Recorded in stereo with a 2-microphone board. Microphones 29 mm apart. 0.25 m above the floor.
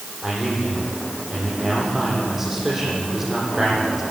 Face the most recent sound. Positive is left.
turn(degrees=-10)  # may be behind; listen again after turning